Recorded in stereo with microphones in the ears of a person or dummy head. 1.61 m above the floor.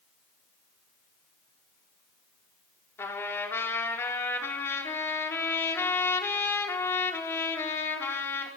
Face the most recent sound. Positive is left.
turn(degrees=15)  # may be behind; listen again after turning